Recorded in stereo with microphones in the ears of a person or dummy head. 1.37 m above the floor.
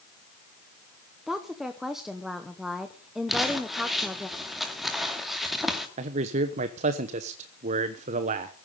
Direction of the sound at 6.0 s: 40° right (ahead or behind).